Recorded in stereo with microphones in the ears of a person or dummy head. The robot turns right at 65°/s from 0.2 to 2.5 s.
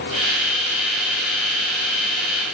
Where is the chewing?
I don't hear chewing.